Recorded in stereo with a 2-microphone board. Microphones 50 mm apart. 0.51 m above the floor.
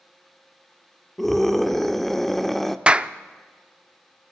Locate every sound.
1.2 s a scream: 5° left (ahead or behind), 1.0 m
2.9 s a clap: 20° right (ahead or behind), 0.5 m